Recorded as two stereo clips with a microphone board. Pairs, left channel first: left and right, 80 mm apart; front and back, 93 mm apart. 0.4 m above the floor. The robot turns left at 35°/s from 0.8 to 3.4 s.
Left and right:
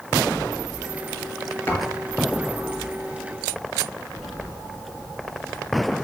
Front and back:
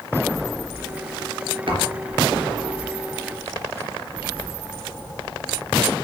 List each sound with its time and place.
1.7 s a thud: 155° left, 3 m; by 2.0 s 145° left, 3 m